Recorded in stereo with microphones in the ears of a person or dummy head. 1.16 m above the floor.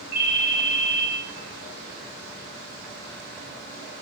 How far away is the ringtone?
About 1.4 m.